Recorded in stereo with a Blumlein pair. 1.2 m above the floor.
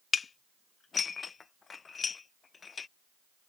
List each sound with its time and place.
0.1 s dishes clattering: 20° left